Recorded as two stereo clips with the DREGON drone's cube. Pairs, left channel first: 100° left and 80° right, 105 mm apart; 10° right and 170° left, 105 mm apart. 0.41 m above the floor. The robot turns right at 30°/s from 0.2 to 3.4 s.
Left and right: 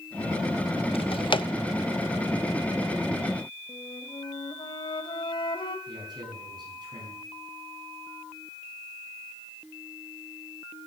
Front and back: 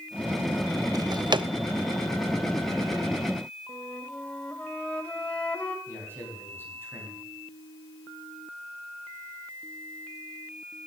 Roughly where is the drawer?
Behind left.